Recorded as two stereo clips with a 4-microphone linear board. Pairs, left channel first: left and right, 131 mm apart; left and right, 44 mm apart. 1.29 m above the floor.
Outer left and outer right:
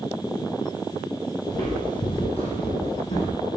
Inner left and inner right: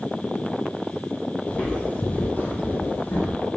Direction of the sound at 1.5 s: 30° left (ahead or behind).